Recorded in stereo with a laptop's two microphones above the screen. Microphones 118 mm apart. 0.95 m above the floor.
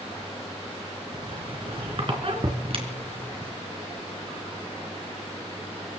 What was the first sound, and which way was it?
A squeak, 50° right (ahead or behind).